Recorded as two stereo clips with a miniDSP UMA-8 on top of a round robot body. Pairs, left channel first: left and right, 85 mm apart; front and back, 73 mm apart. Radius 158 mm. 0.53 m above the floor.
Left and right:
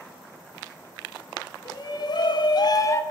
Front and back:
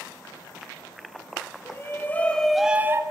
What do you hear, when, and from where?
1.6 s a shout: 55° left, 1.9 m; by 3.0 s 140° left, 1.0 m